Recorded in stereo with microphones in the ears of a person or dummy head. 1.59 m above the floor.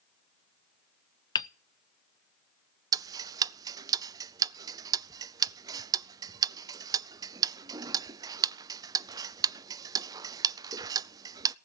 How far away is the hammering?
About 0.6 m.